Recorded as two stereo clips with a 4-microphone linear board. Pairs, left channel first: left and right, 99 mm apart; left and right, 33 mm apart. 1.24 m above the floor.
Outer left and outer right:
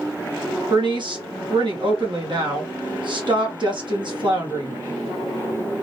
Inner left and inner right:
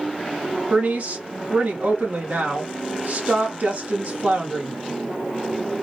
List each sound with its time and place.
0.7 s a woman speaking: 55° right (ahead or behind), 0.8 m